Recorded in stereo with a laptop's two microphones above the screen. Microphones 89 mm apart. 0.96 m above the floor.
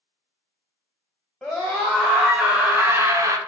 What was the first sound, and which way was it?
A scream, centre (ahead or behind).